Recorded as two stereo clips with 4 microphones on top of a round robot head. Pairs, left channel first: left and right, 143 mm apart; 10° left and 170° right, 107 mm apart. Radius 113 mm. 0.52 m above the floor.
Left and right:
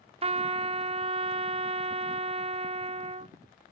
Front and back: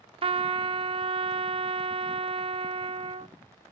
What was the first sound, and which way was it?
A trumpet, 135° right.